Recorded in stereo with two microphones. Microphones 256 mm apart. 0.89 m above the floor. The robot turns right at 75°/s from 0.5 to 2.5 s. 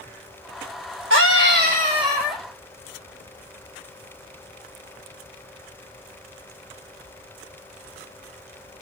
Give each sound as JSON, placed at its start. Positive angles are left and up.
{"t": 1.1, "sound": "a scream", "azimuth_deg": -95, "distance_m": 0.5}